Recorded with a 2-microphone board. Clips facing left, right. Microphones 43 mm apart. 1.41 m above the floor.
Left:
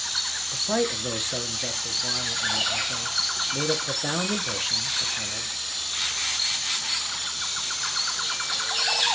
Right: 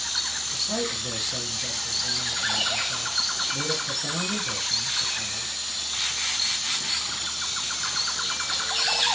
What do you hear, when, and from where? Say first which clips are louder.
0.5 s a man speaking: left 5 dB; 45° left (ahead or behind), 0.7 m